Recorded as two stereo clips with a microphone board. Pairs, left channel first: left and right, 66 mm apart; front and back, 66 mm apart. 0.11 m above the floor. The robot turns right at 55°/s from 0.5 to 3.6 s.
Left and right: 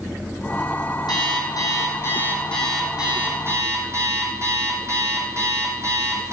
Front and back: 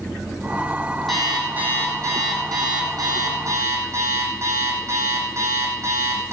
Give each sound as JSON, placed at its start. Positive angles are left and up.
{"t": 1.1, "sound": "an alarm clock", "azimuth_deg": 85, "distance_m": 3.0}